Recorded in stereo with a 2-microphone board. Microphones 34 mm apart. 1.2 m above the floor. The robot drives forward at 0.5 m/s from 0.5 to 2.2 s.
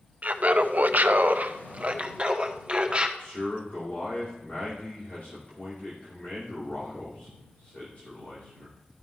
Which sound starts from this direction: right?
Laughter, at 0.2 s.